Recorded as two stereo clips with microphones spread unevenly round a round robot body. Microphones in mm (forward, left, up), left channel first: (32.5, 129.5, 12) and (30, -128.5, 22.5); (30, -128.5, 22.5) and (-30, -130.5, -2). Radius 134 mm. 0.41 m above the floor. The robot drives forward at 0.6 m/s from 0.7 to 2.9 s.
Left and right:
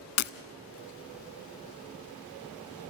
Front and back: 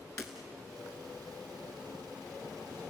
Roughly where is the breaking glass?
Ahead left.